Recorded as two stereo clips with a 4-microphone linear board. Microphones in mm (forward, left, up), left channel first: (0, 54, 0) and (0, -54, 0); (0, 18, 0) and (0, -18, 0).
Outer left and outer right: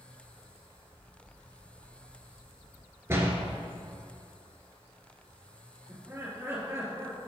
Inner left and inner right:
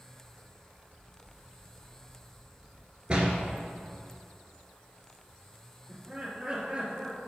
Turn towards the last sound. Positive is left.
turn(degrees=-25)  # may be behind; listen again after turning